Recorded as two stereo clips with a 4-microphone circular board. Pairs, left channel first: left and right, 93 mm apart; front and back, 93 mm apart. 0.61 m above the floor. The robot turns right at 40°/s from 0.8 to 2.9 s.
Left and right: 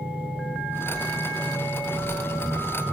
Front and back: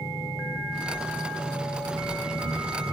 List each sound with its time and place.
0.0 s an engine running: 95° left, 5 m; by 2.9 s 175° left, 5 m